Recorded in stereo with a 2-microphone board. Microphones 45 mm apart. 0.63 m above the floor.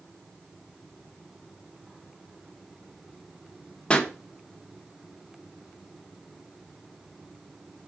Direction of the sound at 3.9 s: 20° left (ahead or behind).